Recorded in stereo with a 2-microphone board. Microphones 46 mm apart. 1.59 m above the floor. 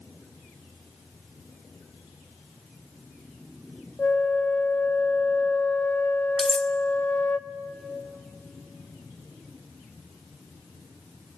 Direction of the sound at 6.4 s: 5° left (ahead or behind).